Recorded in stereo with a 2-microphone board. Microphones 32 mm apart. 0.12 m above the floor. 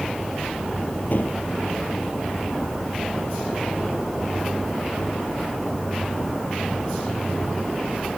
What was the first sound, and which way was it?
A gunshot, 60° left (ahead or behind).